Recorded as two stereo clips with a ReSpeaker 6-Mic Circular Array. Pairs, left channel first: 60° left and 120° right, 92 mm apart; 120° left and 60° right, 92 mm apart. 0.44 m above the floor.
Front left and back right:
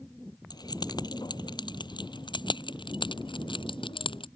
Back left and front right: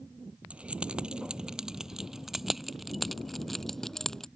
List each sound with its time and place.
0.5 s keys jangling: 20° left; by 4.3 s 35° left